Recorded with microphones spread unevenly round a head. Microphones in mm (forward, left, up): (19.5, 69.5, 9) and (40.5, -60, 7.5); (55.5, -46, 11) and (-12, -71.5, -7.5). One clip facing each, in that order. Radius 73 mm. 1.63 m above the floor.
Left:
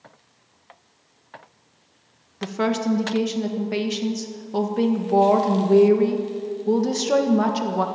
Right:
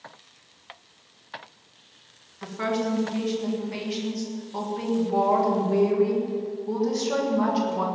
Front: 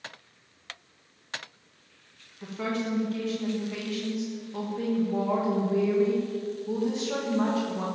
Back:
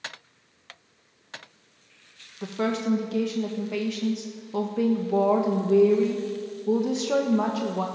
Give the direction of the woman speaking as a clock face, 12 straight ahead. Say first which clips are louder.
Left 4 dB, back 4 dB; 7 o'clock.